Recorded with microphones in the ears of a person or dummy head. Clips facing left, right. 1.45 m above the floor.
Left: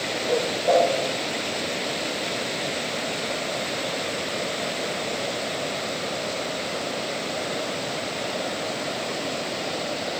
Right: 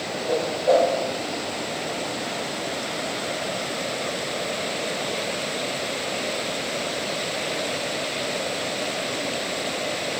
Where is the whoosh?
25° right (ahead or behind), 1.9 m.